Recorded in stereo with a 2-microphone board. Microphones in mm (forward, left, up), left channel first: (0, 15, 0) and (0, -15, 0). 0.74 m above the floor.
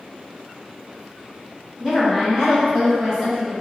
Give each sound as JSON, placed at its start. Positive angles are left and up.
{"t": 1.8, "sound": "a woman speaking", "side_deg": -10, "distance_m": 1.2}